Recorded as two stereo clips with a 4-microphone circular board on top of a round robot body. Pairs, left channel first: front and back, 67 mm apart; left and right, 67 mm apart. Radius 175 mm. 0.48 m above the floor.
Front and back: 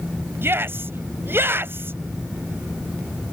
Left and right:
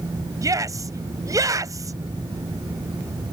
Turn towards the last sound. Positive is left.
turn(degrees=-125)